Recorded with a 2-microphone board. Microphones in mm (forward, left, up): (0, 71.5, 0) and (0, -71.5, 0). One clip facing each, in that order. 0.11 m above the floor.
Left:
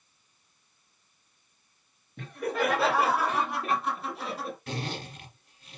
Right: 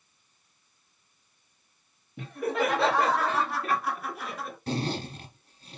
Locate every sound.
2.2 s laughter: 5° right (ahead or behind), 2.5 m; by 4.6 s 35° left (ahead or behind), 2 m
4.7 s a zipper: 30° right (ahead or behind), 1.5 m